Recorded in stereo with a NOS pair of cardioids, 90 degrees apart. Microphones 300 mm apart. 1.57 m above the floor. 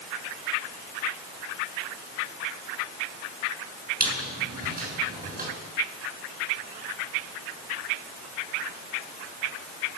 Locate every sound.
4.0 s a squeak: 30° right, 7 m